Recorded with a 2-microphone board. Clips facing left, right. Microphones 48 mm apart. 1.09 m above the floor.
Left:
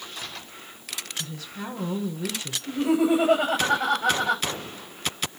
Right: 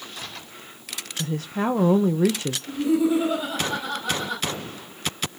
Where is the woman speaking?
45° right (ahead or behind), 1.0 m.